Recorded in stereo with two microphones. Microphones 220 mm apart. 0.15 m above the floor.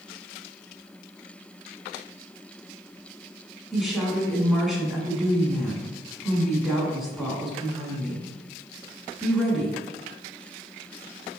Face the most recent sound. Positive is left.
turn(degrees=0)  # may be behind; listen again after turning